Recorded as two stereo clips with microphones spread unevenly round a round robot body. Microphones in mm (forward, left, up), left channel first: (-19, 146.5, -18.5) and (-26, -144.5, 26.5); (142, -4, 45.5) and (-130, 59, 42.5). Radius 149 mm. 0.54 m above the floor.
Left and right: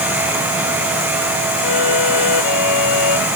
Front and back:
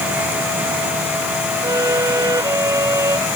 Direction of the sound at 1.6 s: 90° left.